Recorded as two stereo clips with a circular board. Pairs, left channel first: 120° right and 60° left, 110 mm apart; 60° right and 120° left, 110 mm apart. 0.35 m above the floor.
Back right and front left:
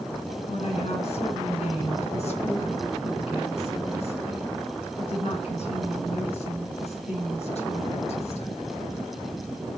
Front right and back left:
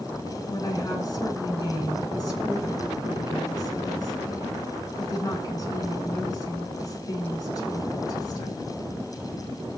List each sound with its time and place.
0.5 s a woman speaking: 110° right, 3.5 m